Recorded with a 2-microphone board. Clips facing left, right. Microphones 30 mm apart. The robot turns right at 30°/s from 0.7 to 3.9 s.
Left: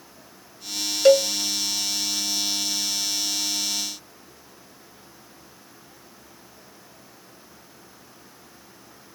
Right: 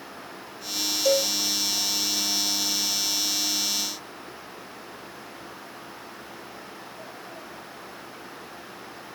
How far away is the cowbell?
About 0.9 m.